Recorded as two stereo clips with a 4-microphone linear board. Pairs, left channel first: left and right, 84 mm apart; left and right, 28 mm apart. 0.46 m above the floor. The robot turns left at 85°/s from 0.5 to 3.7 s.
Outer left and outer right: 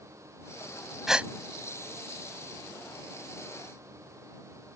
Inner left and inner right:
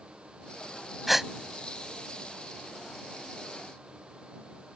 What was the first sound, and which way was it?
A gasp, centre (ahead or behind).